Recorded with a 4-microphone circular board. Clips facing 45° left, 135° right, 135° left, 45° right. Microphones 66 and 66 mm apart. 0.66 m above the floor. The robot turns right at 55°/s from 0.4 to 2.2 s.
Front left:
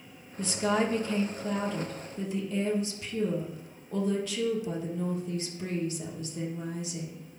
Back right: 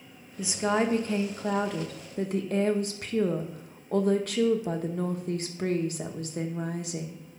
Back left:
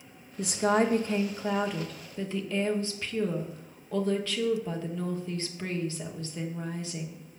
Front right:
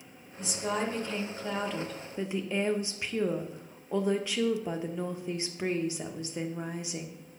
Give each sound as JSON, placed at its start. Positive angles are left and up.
{"t": 0.4, "sound": "a woman speaking", "azimuth_deg": 145, "distance_m": 1.1}